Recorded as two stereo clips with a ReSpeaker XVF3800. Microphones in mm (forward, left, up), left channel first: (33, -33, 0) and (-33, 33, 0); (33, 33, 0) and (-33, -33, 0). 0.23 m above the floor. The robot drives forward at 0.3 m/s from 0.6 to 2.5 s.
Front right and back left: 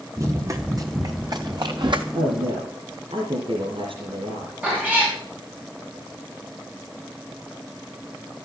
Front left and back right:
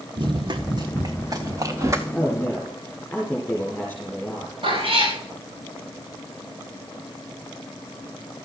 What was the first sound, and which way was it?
Running footsteps, 165° right.